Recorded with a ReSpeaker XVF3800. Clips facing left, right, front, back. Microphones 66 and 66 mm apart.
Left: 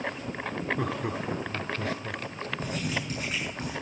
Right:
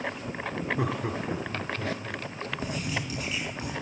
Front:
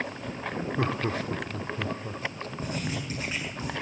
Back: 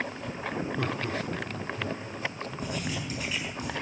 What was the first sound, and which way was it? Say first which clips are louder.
Laughter: right 1 dB, front 2 dB; 20° right.